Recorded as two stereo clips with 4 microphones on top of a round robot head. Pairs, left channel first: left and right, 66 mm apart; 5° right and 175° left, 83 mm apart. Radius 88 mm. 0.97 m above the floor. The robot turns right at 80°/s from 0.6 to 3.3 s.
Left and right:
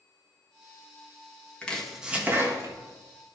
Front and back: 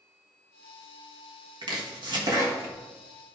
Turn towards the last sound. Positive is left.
turn(degrees=-65)